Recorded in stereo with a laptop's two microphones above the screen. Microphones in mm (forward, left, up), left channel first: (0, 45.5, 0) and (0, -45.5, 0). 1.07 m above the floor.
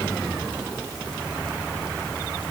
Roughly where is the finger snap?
No finger snap in this recording.